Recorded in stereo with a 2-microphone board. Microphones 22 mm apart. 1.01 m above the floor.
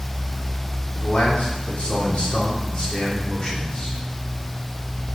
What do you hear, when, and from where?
0.9 s a man speaking: 75° left (ahead or behind), 3 m; by 4.0 s 45° left (ahead or behind), 3 m